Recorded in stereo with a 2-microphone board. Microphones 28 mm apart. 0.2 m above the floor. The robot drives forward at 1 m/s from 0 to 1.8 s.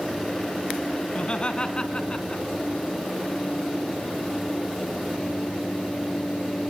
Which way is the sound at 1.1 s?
35° left (ahead or behind).